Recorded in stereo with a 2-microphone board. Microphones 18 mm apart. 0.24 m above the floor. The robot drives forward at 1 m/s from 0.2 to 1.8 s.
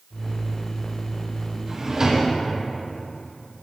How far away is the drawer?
About 4 m.